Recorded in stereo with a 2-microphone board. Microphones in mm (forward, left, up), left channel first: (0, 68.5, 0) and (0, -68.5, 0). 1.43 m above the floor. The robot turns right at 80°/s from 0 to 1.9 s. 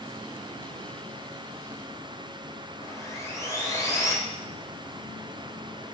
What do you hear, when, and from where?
2.8 s sawing: 25° left (ahead or behind), 2.5 m